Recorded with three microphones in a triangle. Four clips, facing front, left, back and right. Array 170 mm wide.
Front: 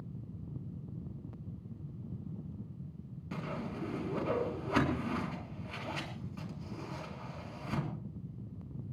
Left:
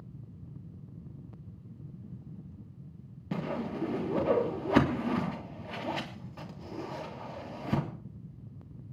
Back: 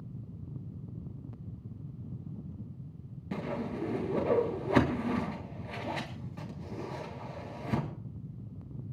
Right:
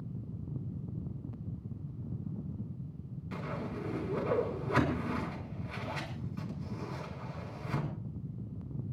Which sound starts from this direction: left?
A whoosh, at 3.3 s.